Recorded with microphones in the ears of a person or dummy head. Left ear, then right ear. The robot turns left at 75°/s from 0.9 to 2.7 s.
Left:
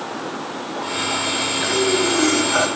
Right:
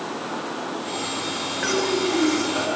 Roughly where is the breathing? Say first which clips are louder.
Left 2 dB; behind.